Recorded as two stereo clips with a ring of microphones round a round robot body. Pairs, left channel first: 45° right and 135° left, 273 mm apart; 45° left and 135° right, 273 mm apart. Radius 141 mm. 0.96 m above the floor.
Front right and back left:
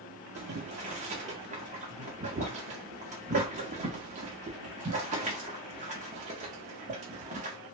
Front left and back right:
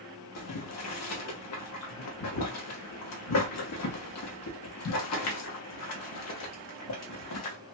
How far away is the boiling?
About 0.7 m.